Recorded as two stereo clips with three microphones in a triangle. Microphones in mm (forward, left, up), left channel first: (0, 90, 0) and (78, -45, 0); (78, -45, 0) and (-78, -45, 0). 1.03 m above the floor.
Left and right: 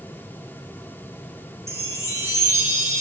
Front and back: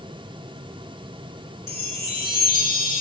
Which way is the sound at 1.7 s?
10° left.